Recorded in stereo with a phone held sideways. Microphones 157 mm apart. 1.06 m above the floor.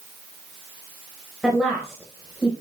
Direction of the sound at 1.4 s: Centre (ahead or behind).